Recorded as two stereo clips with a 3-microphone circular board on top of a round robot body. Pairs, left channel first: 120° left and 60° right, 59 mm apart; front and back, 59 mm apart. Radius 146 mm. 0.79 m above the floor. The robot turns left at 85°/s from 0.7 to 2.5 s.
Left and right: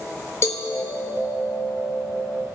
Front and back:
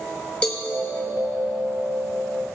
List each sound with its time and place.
0.4 s a cowbell: 75° left, 1.0 m